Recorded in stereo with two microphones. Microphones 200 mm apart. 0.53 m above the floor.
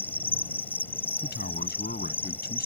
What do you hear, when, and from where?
0.0 s an insect: 10° left (ahead or behind)
1.2 s a man speaking: 55° left (ahead or behind)